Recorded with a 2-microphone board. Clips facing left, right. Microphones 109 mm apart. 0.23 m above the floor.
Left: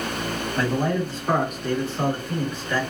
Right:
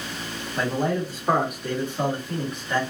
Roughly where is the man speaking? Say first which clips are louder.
Even; centre.